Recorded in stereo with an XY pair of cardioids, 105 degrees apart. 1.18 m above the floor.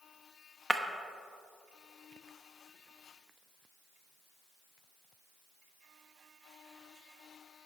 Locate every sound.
0.7 s breaking glass: 10° right, 0.9 m